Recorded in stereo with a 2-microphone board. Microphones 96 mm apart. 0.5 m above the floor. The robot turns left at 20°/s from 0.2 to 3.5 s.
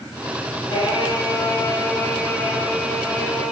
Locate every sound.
0.7 s singing: 45° left, 7.5 m; by 3.5 s 10° right, 7.5 m